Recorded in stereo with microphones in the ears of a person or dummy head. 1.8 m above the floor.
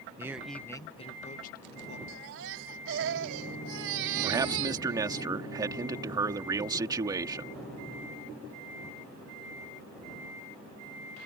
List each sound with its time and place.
0.2 s a man speaking: 20° right (ahead or behind); by 2.0 s 50° left (ahead or behind)
2.1 s a baby crying: 65° right (ahead or behind)
4.2 s a man speaking: 20° right (ahead or behind)